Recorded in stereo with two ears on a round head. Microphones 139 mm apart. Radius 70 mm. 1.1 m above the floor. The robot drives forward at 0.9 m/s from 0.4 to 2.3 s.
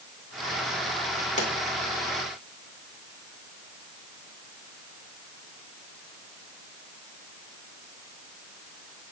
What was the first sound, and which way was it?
A pop, 50° left (ahead or behind).